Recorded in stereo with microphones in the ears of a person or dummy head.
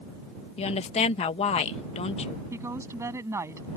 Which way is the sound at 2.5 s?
15° right (ahead or behind).